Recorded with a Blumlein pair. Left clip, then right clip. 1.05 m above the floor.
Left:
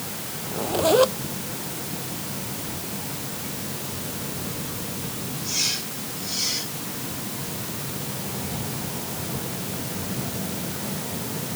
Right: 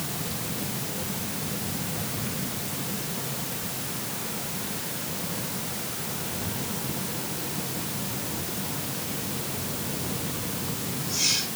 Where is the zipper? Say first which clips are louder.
Left 13 dB; 45° left.